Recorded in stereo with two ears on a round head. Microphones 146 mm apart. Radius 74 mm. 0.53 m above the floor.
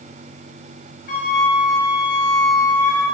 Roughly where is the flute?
Left.